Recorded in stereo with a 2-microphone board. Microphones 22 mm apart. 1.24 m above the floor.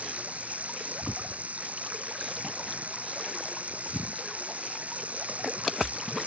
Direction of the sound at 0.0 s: 80° right.